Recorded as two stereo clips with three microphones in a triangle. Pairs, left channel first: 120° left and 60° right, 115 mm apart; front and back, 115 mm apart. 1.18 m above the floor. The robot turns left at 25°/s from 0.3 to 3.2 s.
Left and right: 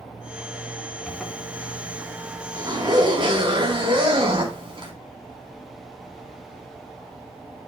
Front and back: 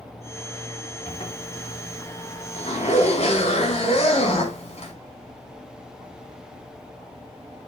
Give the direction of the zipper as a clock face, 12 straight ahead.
11 o'clock.